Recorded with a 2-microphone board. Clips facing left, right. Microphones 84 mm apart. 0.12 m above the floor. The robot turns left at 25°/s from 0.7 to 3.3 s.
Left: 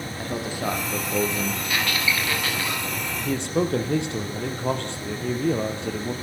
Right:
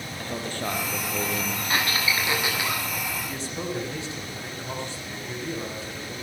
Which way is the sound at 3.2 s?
70° left (ahead or behind).